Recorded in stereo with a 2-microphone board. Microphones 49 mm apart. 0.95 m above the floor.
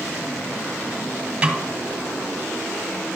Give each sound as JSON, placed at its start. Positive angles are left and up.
{"t": 1.4, "sound": "a snare drum", "side_deg": -20, "distance_m": 1.8}